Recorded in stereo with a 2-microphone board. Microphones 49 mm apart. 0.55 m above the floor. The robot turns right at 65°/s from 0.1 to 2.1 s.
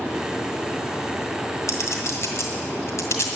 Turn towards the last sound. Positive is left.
turn(degrees=70)  # may be behind; listen again after turning